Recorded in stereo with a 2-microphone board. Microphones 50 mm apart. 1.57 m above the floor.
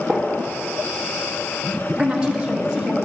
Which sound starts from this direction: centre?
A gunshot, at 0.1 s.